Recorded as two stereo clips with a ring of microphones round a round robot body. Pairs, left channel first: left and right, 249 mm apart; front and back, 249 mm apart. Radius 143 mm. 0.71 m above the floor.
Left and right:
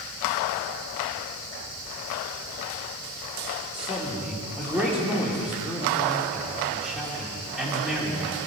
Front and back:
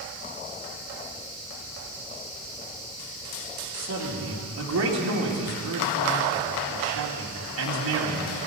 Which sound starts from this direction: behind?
A man speaking, at 3.7 s.